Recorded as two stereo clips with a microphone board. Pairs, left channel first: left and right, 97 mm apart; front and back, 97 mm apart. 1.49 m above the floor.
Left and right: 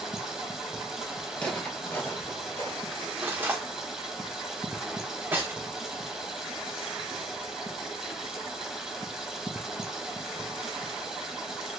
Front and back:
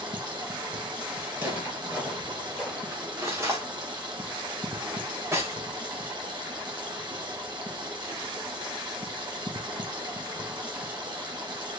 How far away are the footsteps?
About 1.5 m.